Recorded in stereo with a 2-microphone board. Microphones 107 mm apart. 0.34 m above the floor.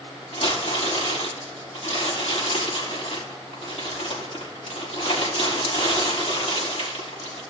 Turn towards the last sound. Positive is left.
turn(degrees=70)  # may be behind; listen again after turning